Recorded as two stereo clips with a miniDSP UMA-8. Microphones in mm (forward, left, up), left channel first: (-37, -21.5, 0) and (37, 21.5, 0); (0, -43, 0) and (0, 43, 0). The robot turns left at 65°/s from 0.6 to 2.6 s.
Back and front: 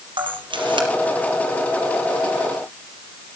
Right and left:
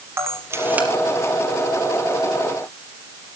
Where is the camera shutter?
30° left, 4.5 m; by 0.9 s 15° left, 4.5 m.